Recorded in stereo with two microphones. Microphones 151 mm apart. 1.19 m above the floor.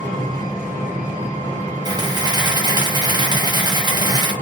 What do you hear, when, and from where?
0.0 s an engine running: 55° right (ahead or behind), 1.6 m
1.9 s a camera shutter: 25° right (ahead or behind), 0.7 m